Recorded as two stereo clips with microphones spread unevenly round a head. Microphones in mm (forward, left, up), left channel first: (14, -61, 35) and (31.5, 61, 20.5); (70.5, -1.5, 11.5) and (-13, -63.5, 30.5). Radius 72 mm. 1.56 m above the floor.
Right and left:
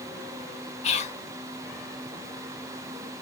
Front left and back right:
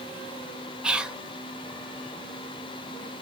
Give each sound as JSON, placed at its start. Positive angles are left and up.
{"t": 0.8, "sound": "whispering", "azimuth_deg": -65, "distance_m": 0.7}